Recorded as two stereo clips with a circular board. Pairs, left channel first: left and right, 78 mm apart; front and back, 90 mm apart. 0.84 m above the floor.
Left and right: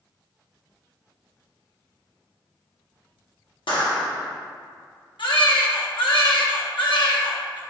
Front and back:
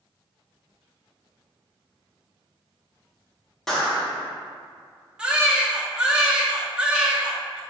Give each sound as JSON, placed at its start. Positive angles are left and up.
{"t": 3.7, "sound": "a clap", "azimuth_deg": 85, "distance_m": 1.1}
{"t": 5.2, "sound": "a baby crying", "azimuth_deg": 100, "distance_m": 0.7}